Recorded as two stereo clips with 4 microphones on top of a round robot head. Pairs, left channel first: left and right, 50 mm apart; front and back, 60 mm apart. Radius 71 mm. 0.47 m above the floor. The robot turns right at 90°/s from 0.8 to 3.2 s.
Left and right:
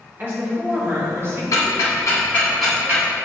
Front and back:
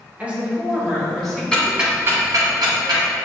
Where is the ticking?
80° left, 1.0 m; by 3.0 s 145° right, 1.0 m.